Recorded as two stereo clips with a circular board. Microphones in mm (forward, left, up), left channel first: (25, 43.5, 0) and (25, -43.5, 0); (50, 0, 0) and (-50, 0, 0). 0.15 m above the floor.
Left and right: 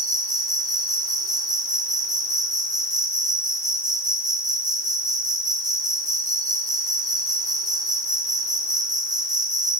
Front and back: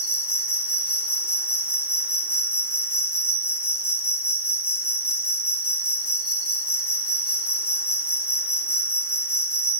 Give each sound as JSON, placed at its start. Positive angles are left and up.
{"t": 0.0, "sound": "an insect", "azimuth_deg": -105, "distance_m": 1.5}